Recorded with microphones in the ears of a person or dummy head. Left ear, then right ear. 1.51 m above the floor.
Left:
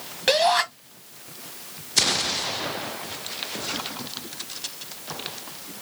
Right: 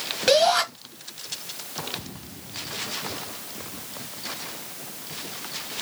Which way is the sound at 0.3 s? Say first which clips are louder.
Right 1 dB; 10° left (ahead or behind).